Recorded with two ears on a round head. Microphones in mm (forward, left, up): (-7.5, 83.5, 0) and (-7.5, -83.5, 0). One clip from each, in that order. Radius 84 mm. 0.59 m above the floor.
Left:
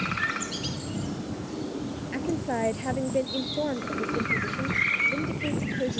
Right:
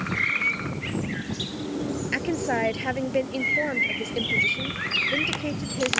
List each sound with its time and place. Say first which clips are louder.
2.1 s a woman speaking: right 4 dB; 60° right (ahead or behind)